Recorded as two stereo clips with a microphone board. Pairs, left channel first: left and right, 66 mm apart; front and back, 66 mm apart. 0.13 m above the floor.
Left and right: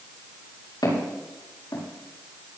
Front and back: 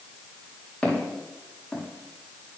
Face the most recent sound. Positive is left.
turn(degrees=70)